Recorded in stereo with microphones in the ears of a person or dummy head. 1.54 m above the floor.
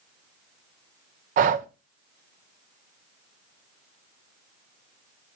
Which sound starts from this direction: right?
Breathing, at 1.4 s.